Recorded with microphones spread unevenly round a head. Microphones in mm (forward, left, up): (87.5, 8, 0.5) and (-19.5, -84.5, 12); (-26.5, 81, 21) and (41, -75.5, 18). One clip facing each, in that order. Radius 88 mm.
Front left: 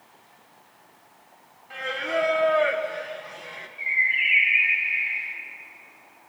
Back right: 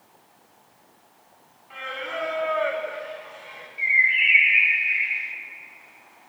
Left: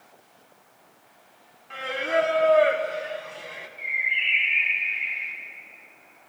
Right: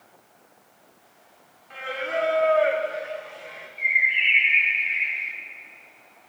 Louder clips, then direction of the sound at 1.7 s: Front left 6 dB, left 4 dB; 95° left.